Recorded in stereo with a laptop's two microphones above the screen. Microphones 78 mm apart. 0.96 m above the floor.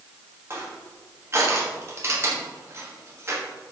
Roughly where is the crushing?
Right.